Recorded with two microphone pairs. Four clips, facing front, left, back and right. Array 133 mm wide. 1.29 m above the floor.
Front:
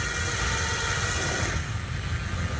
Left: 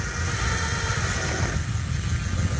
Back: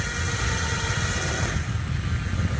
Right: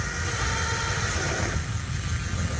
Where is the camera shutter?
I don't hear a camera shutter.